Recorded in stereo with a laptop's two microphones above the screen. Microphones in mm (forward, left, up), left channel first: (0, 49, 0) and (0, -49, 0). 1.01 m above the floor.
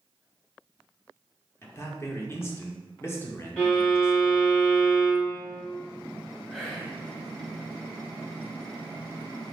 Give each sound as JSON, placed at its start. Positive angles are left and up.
{"t": 1.6, "sound": "a man speaking", "side_deg": 25, "distance_m": 0.9}
{"t": 3.6, "sound": "a violin", "side_deg": 15, "distance_m": 1.6}
{"t": 6.5, "sound": "whispering", "side_deg": 10, "distance_m": 1.3}